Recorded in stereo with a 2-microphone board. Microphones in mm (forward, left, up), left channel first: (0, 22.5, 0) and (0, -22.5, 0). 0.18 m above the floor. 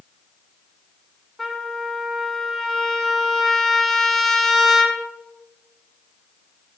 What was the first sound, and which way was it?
A trumpet, 5° left (ahead or behind).